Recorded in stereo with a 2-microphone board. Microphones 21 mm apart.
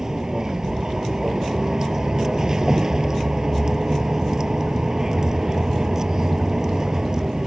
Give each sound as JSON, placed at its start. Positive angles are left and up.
{"t": 0.0, "sound": "a vehicle", "side_deg": -25}